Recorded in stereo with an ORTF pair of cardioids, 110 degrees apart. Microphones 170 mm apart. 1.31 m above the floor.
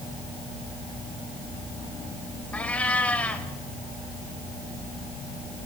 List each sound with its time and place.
2.5 s a cat meowing: 10° left, 2.5 m